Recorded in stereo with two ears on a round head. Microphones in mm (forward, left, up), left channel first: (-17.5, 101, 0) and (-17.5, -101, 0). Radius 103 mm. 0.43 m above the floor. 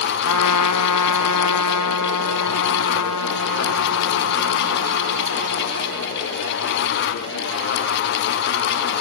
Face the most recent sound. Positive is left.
turn(degrees=75)  # may be behind; listen again after turning